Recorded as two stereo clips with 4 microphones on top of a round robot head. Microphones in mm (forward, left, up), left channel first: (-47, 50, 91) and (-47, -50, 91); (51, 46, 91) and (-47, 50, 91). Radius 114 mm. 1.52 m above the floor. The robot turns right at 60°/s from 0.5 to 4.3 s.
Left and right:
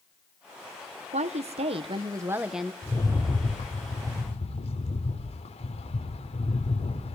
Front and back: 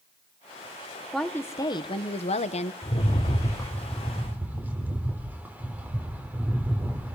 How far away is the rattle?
About 4.5 m.